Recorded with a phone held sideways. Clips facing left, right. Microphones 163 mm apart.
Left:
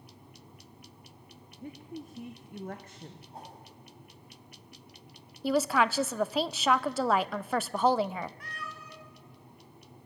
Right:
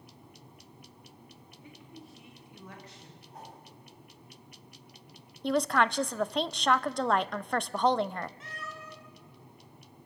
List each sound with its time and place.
1.6 s a woman speaking: 45° left (ahead or behind), 1.3 m
3.3 s a whoosh: 30° left (ahead or behind), 7 m
5.4 s a woman speaking: 5° left (ahead or behind), 0.5 m
8.4 s a cat meowing: 20° right (ahead or behind), 4.5 m